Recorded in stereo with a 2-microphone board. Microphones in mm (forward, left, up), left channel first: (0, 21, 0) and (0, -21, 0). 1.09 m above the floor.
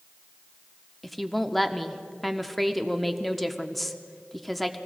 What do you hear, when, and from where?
1.0 s a woman speaking: centre (ahead or behind), 0.7 m